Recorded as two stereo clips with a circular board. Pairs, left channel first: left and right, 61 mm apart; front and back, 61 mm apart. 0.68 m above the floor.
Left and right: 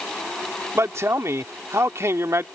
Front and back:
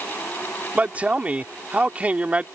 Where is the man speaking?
115° right.